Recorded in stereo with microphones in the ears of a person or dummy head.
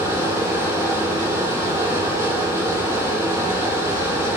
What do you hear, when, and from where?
0.0 s a fan: 15° right (ahead or behind), 0.8 m